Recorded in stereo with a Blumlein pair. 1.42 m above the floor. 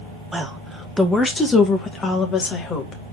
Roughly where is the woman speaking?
Ahead.